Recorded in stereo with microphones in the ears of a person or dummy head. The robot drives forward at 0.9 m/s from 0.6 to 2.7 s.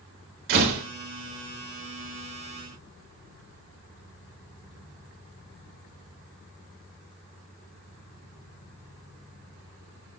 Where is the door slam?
65° right (ahead or behind), 4 m; by 0.8 s 70° right (ahead or behind), 4 m.